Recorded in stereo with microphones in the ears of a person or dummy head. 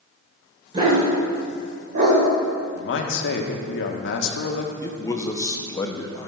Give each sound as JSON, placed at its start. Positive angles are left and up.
{"t": 0.7, "sound": "a dog barking", "side_deg": -30, "distance_m": 2.0}
{"t": 2.8, "sound": "a man speaking", "side_deg": 75, "distance_m": 1.3}
{"t": 4.8, "sound": "a man speaking", "side_deg": 15, "distance_m": 0.9}